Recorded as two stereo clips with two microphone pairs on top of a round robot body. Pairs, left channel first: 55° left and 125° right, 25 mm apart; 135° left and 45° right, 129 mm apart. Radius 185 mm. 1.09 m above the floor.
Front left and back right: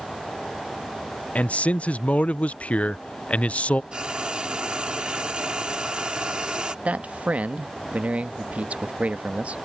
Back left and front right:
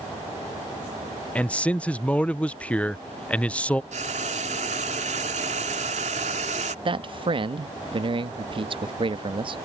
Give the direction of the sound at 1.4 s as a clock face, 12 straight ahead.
10 o'clock.